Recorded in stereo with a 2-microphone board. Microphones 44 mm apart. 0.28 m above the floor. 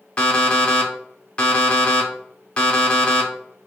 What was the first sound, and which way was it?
An alarm clock, 30° left (ahead or behind).